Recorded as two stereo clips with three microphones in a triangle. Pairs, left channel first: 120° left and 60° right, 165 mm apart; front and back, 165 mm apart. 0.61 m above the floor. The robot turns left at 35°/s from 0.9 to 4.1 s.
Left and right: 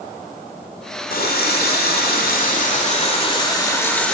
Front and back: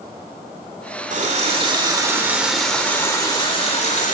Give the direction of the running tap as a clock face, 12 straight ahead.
7 o'clock.